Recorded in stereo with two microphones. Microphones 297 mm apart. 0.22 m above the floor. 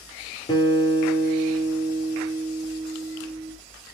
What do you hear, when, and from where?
0.5 s a guitar: 15° left (ahead or behind), 4.5 m